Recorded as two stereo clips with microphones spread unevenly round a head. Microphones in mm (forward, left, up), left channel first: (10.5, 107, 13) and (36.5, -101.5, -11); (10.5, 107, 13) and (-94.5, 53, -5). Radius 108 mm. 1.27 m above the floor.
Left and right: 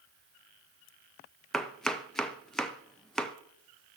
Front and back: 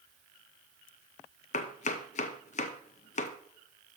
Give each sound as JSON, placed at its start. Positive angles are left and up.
{"t": 1.5, "sound": "chopping", "azimuth_deg": 5, "distance_m": 0.6}